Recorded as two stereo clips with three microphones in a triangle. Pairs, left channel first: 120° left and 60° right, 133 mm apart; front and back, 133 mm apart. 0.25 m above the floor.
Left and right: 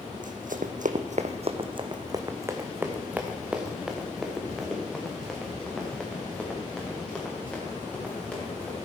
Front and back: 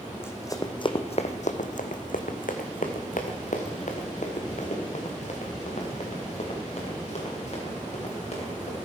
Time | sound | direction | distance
0.1 | running footsteps | 75° right | 1.0 m